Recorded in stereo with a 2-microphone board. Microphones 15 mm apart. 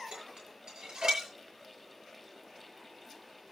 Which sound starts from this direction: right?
Dishes clattering, at 0.1 s.